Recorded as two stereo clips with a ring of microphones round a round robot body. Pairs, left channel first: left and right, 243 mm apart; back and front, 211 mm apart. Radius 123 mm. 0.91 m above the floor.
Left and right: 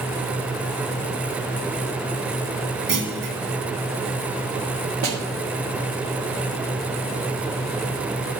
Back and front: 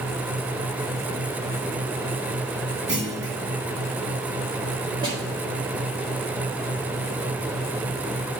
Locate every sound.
2.9 s a clunk: 45° right, 1.7 m
5.0 s a snare drum: 70° right, 1.5 m